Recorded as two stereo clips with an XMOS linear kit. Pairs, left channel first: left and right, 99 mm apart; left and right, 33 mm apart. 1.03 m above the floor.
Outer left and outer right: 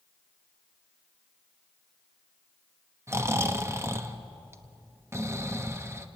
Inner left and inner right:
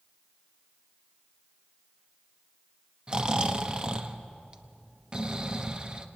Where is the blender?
No blender in this recording.